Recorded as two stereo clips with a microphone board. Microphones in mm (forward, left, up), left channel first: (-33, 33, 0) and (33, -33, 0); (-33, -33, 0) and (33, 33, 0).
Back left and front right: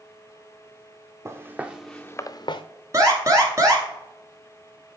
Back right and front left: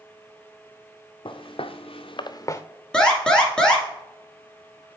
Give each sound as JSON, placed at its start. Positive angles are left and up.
{"t": 1.2, "sound": "footsteps", "azimuth_deg": -105, "distance_m": 0.9}
{"t": 2.9, "sound": "an alarm", "azimuth_deg": -60, "distance_m": 1.5}